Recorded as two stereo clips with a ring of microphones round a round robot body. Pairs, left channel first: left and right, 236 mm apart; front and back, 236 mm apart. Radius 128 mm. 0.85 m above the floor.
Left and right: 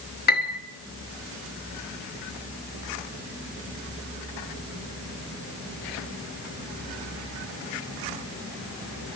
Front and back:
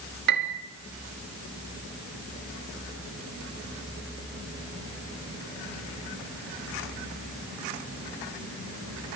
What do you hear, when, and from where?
0.3 s a piano: 135° left, 0.8 m